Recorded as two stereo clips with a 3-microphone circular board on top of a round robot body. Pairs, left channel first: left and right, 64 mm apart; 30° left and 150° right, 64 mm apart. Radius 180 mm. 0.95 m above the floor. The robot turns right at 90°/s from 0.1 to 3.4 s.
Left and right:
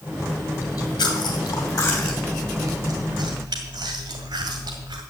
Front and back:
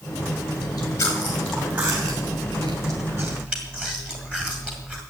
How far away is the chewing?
About 2 m.